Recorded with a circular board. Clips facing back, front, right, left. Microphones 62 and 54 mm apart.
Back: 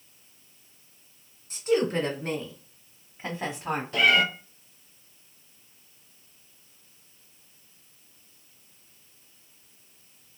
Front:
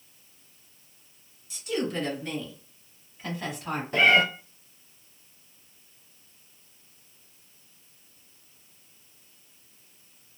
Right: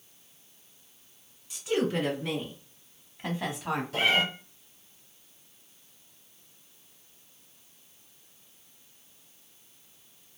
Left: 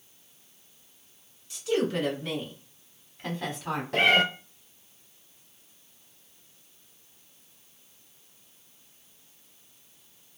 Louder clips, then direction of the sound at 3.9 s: Front 2 dB, left 4 dB; 55° left.